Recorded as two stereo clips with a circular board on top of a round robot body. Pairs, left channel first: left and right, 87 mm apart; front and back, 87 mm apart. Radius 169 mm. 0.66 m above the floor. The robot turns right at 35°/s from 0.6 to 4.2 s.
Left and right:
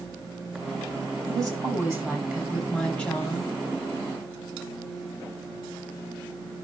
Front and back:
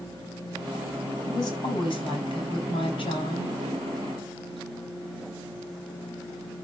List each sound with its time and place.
1.3 s a woman speaking: 50° right, 7 m; by 3.6 s 30° left, 7 m